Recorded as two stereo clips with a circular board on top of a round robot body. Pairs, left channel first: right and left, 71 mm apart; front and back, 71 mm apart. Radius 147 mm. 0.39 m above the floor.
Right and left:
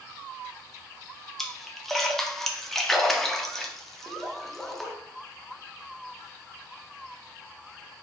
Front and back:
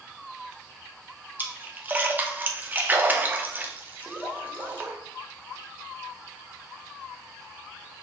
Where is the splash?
170° right, 0.9 m.